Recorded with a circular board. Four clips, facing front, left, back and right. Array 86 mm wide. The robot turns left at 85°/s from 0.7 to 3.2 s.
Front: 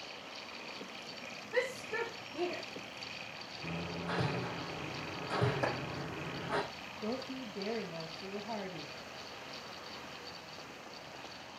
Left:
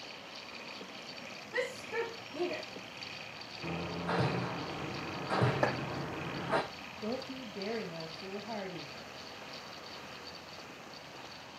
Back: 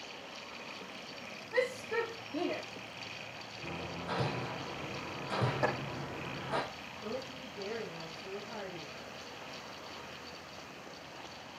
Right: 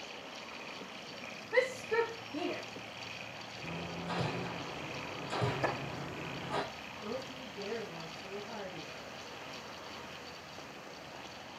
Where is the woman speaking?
55° left, 4.5 m.